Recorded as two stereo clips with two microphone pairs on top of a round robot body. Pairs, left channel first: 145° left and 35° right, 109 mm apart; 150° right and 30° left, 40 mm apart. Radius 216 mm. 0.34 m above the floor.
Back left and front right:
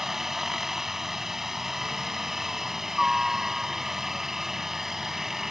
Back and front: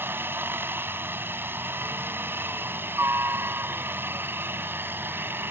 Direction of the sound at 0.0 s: 50° left.